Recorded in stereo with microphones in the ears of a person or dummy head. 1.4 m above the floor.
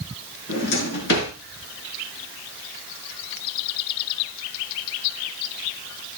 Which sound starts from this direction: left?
A drawer, at 0.5 s.